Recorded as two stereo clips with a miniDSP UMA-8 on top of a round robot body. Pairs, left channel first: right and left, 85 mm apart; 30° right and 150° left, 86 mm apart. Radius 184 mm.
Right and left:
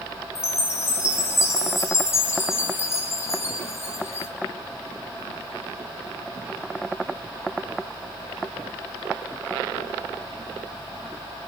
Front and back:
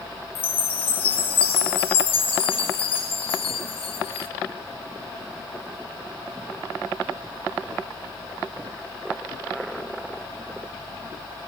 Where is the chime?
30° right, 0.9 m.